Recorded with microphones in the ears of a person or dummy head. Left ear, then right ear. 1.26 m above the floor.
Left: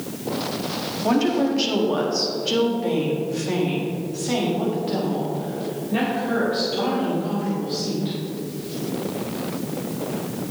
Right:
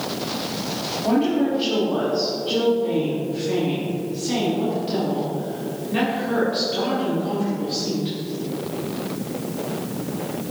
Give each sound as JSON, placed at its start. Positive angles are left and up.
{"t": 1.0, "sound": "a woman speaking", "side_deg": 85, "distance_m": 2.0}